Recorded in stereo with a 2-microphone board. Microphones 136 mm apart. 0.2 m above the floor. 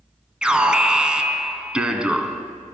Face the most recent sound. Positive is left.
turn(degrees=-5)  # may be behind; listen again after turning